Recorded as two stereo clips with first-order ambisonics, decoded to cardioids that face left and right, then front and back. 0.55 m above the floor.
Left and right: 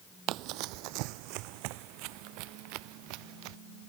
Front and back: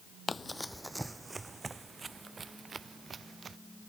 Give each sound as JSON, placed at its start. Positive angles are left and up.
{"t": 0.3, "sound": "running footsteps", "azimuth_deg": -75}